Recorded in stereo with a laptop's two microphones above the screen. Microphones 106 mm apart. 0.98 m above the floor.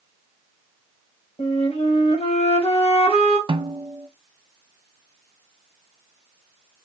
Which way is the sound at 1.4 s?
75° left (ahead or behind).